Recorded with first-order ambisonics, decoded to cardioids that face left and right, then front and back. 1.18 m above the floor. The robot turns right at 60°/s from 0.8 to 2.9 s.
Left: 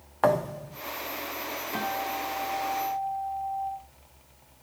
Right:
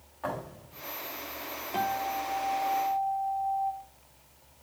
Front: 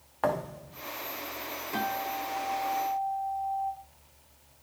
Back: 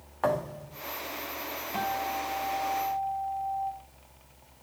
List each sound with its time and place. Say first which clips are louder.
0.2 s a thud: left 12 dB, back 1 dB; 85° left, 0.8 m
1.7 s a guitar: right 2 dB, back 1 dB; 35° left, 4.5 m; by 3.7 s 105° left, 4.5 m